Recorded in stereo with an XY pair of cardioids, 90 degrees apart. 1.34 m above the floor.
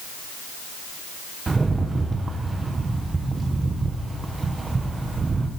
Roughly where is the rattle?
Ahead right.